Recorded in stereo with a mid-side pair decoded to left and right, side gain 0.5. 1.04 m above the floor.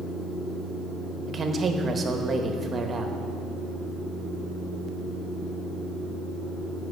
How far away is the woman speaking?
About 1.1 m.